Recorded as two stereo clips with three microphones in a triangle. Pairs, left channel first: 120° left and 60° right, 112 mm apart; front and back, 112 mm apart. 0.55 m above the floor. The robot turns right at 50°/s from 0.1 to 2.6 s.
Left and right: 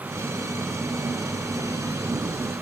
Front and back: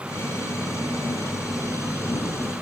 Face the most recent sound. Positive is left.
No sound to turn to.